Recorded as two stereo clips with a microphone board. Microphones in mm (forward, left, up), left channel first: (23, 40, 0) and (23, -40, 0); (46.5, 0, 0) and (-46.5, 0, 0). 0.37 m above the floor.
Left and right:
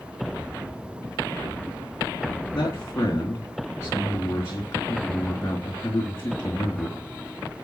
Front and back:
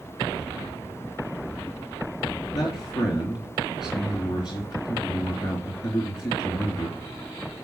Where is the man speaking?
35° left, 3.5 m.